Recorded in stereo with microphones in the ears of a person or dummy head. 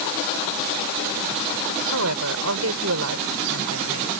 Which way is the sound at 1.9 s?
85° right.